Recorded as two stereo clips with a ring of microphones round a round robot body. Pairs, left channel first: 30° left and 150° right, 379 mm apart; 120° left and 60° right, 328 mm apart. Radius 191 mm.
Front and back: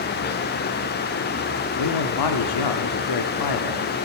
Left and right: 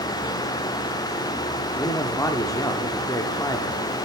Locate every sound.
1.8 s a man speaking: 40° left, 1.1 m